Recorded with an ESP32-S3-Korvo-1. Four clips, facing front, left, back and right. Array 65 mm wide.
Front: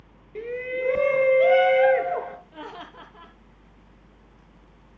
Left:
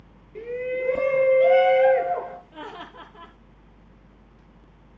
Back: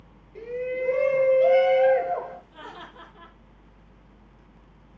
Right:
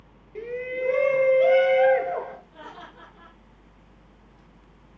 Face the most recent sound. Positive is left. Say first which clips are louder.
# left 4 dB, front 3 dB
turn(degrees=45)